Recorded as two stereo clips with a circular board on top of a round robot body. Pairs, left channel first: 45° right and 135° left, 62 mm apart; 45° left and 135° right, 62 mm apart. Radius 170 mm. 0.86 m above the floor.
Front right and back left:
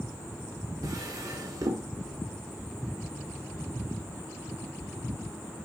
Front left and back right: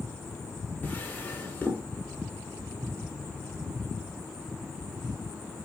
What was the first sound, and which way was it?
A drawer, 110° left.